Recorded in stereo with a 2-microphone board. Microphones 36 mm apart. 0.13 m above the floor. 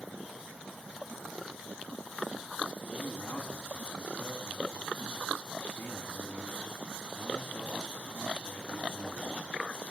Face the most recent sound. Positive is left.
turn(degrees=60)  # may be behind; listen again after turning